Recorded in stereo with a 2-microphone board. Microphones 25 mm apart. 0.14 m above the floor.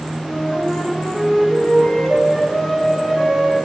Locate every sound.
0.2 s a flute: 35° left (ahead or behind), 6 m